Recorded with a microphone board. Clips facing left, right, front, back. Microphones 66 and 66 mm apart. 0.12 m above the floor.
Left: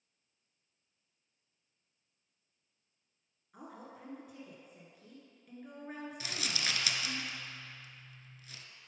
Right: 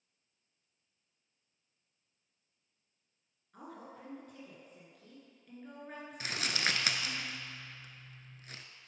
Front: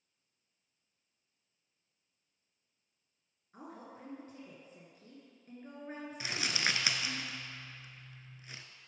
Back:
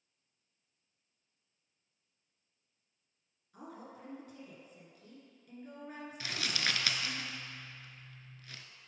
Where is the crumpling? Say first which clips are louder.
Right 5 dB, front 1 dB; 70° right, 0.5 m.